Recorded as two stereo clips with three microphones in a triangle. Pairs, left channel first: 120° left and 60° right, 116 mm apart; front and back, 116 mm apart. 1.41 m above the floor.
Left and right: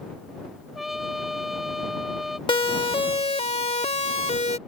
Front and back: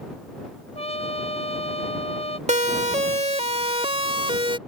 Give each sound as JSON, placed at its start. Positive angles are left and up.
{"t": 0.8, "sound": "a trumpet", "azimuth_deg": 30}
{"t": 2.5, "sound": "a siren", "azimuth_deg": 165}